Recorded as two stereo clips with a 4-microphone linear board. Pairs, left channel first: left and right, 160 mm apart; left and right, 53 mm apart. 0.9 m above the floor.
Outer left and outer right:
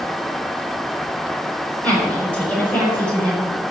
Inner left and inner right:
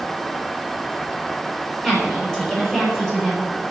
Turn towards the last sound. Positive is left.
turn(degrees=10)  # may be behind; listen again after turning